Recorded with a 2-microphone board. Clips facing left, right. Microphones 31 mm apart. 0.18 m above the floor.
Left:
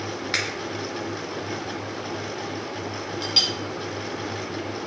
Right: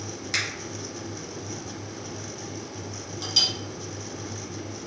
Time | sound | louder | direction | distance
0.3 | a finger snap | left 1 dB | 30° left (ahead or behind) | 1.0 m
3.2 | a clink | left 1 dB | 30° left (ahead or behind) | 0.7 m